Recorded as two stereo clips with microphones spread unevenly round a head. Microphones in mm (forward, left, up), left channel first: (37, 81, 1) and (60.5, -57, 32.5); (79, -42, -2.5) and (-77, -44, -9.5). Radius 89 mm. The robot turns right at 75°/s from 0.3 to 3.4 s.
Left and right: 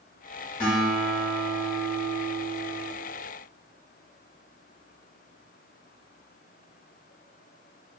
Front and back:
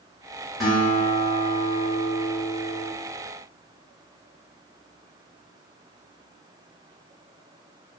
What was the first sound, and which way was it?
A guitar, 80° left.